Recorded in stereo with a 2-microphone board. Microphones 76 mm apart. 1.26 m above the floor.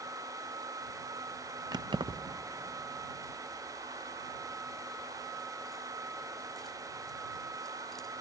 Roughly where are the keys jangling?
Right.